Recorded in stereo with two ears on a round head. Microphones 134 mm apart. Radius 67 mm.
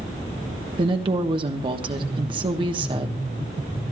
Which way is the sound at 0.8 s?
35° right (ahead or behind).